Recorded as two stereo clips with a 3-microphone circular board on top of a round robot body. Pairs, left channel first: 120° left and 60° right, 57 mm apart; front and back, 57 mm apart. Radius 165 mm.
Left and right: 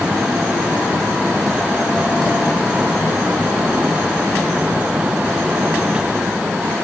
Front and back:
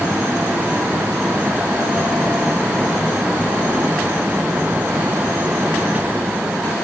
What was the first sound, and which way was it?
Only background noise.